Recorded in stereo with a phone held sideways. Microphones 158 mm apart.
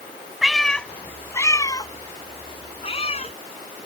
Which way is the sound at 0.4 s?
5° right (ahead or behind).